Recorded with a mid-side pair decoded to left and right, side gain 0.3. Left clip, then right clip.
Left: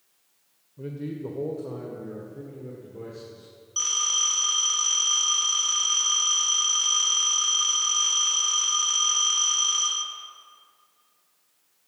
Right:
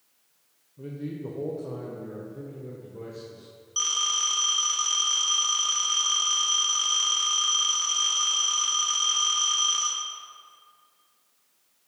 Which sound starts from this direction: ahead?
A phone ringing, at 3.8 s.